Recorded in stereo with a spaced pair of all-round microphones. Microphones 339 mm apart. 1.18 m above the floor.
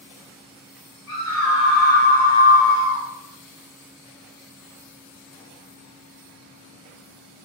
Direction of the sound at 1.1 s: 5° left (ahead or behind).